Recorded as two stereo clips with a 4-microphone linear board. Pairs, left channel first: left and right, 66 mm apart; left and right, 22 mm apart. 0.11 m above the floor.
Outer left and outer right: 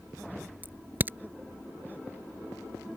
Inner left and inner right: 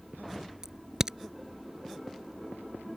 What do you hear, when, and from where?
0.6 s a crack: 30° right (ahead or behind)